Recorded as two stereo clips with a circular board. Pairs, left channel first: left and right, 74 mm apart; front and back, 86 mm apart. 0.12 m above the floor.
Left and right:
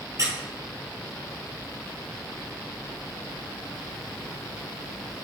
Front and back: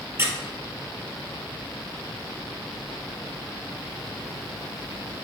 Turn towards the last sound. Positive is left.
turn(degrees=-125)